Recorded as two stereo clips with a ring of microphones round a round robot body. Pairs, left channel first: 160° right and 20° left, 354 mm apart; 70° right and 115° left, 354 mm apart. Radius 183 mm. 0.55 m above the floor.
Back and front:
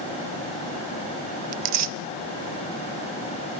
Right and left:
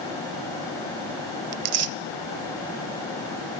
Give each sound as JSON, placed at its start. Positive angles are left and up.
{"t": 1.5, "sound": "tearing paper", "azimuth_deg": 65, "distance_m": 0.5}